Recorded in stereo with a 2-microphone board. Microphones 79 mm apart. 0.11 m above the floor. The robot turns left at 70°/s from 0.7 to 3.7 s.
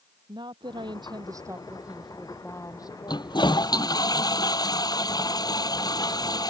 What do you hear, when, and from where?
0.3 s a woman speaking: 85° right; by 4.1 s 65° left
3.1 s a toilet flushing: 105° left; by 6.5 s 65° left